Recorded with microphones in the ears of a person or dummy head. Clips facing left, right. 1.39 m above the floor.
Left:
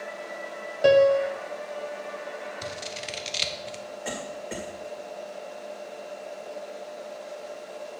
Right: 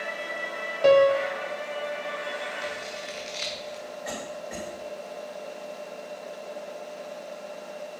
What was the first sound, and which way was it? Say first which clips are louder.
A piano: even; 10° left (ahead or behind).